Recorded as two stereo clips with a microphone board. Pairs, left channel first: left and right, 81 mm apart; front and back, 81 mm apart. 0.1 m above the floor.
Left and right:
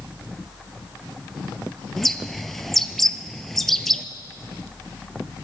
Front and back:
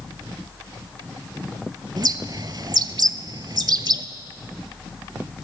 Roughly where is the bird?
Behind.